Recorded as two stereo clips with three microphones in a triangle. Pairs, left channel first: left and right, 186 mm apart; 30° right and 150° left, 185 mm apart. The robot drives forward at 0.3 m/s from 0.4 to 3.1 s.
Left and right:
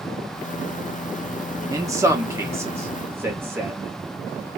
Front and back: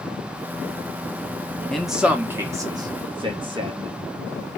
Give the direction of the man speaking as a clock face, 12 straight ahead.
4 o'clock.